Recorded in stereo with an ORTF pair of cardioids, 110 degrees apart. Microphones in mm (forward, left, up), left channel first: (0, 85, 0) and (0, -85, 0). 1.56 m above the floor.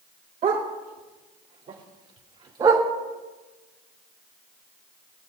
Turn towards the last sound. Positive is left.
turn(degrees=-25)